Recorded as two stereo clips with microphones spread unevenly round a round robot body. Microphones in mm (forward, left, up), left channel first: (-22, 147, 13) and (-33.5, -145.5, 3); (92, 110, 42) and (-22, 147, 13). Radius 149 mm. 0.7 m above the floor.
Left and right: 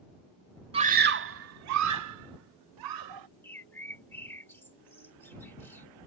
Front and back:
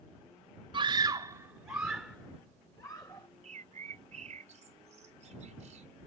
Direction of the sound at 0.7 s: 160° right.